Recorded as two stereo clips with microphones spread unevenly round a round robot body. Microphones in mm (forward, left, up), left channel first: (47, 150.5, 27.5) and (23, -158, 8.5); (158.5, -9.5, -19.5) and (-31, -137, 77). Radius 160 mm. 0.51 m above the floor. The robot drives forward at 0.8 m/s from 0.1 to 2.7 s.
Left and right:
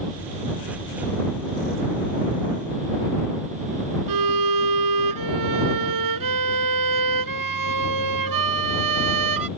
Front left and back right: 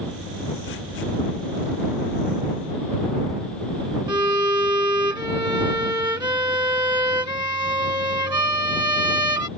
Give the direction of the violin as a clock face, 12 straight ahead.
2 o'clock.